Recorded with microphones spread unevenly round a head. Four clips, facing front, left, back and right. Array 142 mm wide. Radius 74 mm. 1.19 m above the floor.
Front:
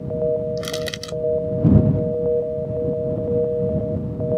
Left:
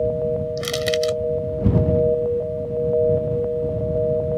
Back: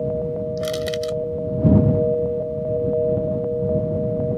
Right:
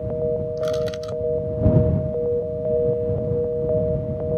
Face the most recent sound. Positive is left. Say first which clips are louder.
# left 1 dB, back 4 dB
turn(degrees=80)